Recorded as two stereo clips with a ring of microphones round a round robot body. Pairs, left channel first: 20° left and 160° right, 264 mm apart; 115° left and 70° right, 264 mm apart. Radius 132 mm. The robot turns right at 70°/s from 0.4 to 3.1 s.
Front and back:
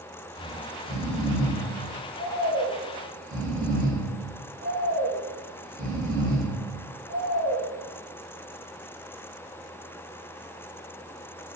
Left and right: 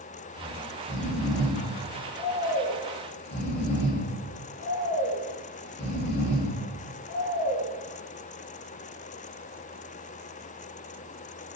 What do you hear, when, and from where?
0.3 s snoring: 40° right, 0.7 m; by 7.6 s 150° left, 0.7 m